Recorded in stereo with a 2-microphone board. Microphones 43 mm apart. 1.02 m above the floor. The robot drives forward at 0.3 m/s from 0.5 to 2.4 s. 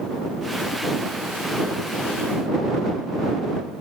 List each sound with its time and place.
Only background noise.